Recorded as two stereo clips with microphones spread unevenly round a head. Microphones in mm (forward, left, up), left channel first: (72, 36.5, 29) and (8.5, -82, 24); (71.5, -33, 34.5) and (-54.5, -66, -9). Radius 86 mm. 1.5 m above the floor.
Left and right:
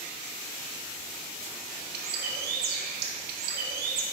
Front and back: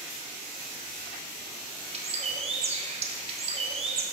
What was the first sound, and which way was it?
A bird, 120° right.